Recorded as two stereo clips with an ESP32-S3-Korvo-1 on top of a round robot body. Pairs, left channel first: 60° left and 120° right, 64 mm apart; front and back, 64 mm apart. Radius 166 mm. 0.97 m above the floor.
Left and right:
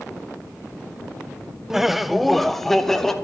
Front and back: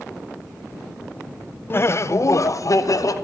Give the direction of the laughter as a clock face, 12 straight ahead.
1 o'clock.